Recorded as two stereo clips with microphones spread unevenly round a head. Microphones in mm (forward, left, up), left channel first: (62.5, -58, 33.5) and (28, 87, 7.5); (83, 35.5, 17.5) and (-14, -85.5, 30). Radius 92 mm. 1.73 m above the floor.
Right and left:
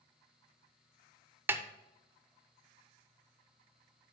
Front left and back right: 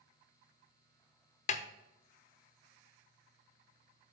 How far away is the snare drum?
About 0.6 m.